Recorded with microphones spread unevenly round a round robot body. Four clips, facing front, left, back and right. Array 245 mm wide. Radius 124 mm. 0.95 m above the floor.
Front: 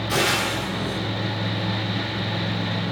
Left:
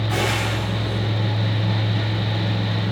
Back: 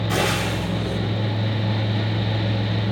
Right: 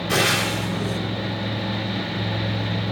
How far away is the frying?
About 2.5 m.